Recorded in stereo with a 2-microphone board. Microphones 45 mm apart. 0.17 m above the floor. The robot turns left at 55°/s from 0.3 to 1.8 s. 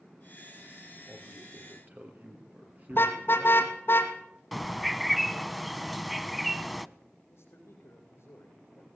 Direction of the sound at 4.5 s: Centre (ahead or behind).